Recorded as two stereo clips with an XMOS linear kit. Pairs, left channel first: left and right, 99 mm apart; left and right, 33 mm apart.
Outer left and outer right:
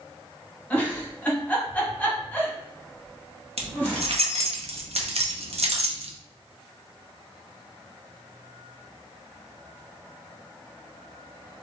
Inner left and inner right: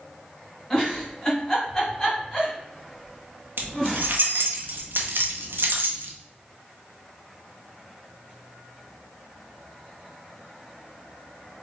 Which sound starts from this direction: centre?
A giggle, at 0.7 s.